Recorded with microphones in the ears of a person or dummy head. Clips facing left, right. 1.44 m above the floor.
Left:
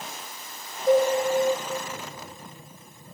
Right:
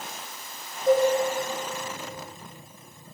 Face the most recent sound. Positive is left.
turn(degrees=-20)  # may be behind; listen again after turning